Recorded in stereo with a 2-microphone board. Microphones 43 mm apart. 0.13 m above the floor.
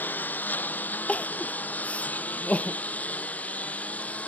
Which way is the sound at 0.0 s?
45° left (ahead or behind).